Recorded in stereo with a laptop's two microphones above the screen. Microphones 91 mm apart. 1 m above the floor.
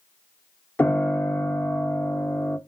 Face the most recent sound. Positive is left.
turn(degrees=20)  # may be behind; listen again after turning